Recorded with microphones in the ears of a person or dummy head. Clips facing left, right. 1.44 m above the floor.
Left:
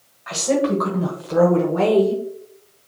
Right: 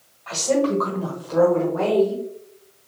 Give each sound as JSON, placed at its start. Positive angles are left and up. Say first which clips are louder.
{"t": 0.3, "sound": "a woman speaking", "louder": "left 1 dB", "side_deg": 10, "distance_m": 1.6}